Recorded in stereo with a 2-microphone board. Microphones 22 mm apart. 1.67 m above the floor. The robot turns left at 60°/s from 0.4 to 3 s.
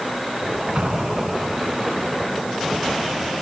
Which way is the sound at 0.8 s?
60° right.